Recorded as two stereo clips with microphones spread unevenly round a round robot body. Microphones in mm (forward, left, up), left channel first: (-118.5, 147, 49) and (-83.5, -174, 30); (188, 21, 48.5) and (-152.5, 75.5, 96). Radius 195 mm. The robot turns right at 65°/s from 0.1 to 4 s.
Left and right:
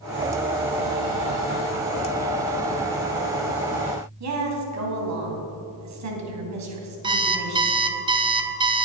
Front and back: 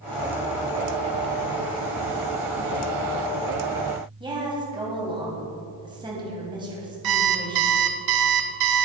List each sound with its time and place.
4.2 s a woman speaking: 110° right, 2.5 m
7.0 s an alarm clock: 160° right, 0.9 m